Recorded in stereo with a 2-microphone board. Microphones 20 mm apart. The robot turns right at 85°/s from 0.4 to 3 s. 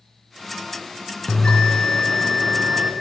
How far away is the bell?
About 0.7 m.